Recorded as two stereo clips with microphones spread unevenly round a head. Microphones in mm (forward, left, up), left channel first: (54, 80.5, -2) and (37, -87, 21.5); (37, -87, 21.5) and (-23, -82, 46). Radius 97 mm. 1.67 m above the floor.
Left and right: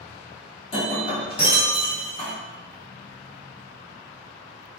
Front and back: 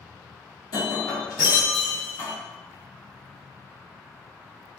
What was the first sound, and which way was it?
Breaking glass, 35° left.